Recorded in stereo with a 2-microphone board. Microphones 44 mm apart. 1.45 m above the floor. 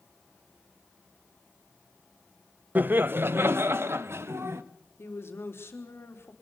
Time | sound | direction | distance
2.8 | laughter | 40° right (ahead or behind) | 0.7 m
5.0 | a woman speaking | 70° left (ahead or behind) | 3.5 m